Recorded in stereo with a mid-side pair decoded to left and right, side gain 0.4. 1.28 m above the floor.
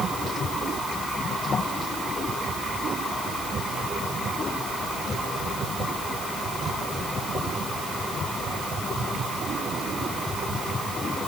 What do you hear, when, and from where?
Only background noise.